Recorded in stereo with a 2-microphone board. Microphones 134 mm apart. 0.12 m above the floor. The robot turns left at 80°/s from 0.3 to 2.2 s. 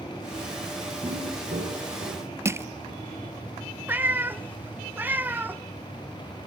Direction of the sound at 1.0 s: 45° right (ahead or behind).